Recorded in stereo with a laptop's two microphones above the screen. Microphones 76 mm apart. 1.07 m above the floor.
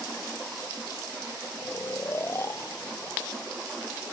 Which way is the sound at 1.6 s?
35° left (ahead or behind).